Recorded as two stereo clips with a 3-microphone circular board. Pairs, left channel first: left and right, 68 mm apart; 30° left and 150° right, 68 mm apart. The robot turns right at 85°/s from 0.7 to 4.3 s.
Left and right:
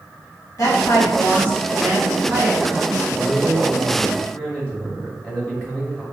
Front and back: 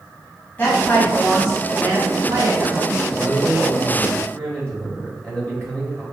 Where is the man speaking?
40° right, 1.4 m; by 6.0 s 60° left, 1.4 m.